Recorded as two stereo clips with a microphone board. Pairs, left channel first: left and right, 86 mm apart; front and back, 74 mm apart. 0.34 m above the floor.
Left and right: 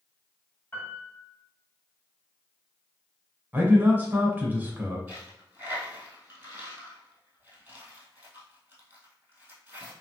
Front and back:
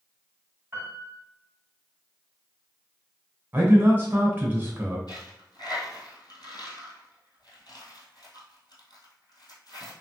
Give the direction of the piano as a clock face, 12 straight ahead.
7 o'clock.